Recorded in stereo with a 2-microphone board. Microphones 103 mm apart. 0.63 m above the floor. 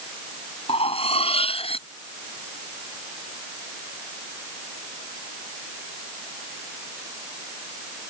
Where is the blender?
No blender in this recording.